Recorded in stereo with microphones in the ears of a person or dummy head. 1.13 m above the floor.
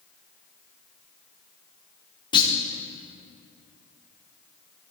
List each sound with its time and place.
2.3 s a clunk: 30° left (ahead or behind), 1.2 m